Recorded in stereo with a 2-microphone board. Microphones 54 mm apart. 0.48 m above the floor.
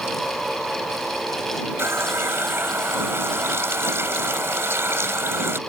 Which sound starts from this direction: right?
A running tap, at 1.8 s.